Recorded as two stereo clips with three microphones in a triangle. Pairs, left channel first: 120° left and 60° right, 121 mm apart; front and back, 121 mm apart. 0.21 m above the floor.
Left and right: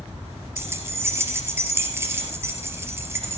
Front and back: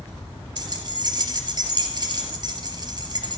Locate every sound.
0.6 s keys jangling: 130° right, 3 m